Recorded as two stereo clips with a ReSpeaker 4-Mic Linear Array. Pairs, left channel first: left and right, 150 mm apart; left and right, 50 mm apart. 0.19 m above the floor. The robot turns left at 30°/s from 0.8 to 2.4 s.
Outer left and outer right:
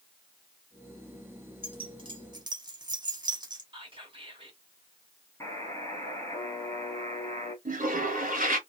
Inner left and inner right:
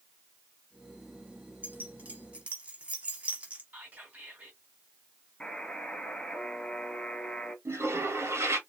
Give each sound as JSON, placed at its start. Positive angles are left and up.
{"t": 1.6, "sound": "keys jangling", "side_deg": -35, "distance_m": 0.8}
{"t": 3.7, "sound": "whispering", "side_deg": -35, "distance_m": 1.5}
{"t": 5.4, "sound": "a buzzer", "side_deg": 20, "distance_m": 1.3}
{"t": 7.7, "sound": "a toilet flushing", "side_deg": -65, "distance_m": 1.0}